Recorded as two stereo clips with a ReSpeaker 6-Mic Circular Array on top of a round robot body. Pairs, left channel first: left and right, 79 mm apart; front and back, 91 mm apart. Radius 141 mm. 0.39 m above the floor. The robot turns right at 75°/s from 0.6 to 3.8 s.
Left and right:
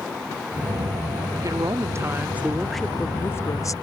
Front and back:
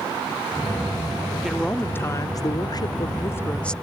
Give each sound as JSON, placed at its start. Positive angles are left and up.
{"t": 1.4, "sound": "a woman speaking", "azimuth_deg": -95}